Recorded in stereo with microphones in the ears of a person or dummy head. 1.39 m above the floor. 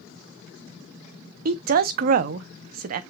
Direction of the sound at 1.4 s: 50° right (ahead or behind).